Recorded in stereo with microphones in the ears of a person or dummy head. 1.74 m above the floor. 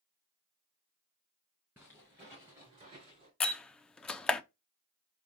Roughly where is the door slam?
Centre.